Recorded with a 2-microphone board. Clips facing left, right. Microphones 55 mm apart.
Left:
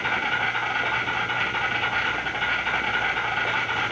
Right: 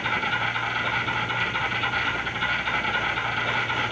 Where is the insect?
30° left (ahead or behind), 1.9 m.